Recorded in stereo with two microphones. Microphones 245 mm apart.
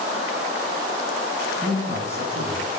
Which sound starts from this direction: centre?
A man speaking, at 1.6 s.